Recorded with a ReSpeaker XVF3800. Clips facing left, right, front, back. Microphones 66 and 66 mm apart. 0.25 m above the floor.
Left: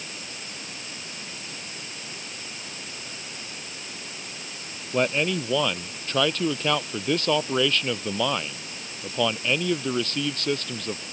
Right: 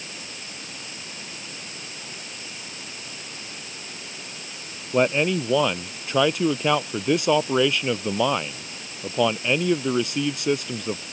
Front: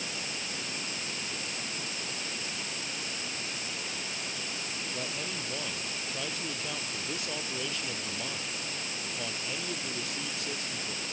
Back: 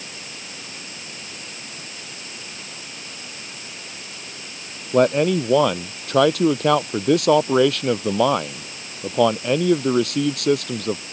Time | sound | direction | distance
4.9 | a man speaking | 165° right | ?